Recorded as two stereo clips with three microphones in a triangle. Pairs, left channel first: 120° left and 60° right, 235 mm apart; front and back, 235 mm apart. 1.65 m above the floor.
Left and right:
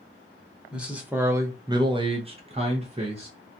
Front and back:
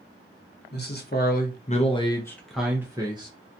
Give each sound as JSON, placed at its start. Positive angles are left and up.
{"t": 0.7, "sound": "a man speaking", "azimuth_deg": 25, "distance_m": 0.9}